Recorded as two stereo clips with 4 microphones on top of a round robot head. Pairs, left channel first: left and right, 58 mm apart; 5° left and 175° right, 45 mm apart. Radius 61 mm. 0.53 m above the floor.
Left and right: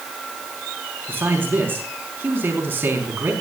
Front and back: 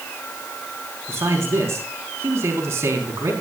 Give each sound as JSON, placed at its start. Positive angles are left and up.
{"t": 1.1, "sound": "a man speaking", "azimuth_deg": -150, "distance_m": 4.5}